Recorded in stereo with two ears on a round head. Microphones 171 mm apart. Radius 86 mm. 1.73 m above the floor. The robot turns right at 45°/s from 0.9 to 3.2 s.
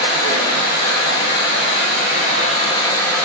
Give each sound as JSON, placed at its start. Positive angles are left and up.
{"t": 0.0, "sound": "running water", "azimuth_deg": 70, "distance_m": 1.6}